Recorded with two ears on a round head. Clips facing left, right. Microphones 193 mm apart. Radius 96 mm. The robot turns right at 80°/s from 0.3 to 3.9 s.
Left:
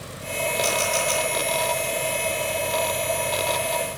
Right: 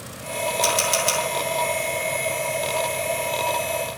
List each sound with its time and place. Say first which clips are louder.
0.6 s a camera shutter: right 1 dB; 25° right (ahead or behind), 6 m; by 1.2 s 70° right (ahead or behind), 6 m